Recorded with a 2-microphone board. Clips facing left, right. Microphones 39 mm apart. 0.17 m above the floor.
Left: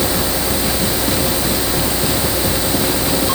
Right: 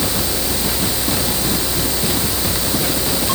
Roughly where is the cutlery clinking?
I don't hear cutlery clinking.